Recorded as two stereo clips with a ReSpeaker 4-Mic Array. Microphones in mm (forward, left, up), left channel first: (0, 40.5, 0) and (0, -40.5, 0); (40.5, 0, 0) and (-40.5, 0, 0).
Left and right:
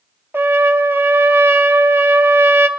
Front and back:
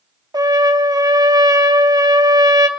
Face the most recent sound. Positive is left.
turn(degrees=-150)